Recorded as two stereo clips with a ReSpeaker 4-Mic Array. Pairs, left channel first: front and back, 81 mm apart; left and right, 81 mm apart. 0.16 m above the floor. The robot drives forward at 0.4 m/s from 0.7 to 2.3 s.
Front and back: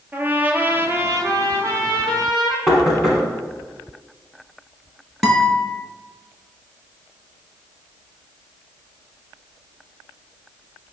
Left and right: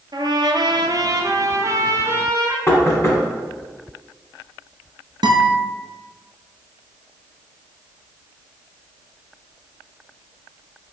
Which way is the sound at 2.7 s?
95° left.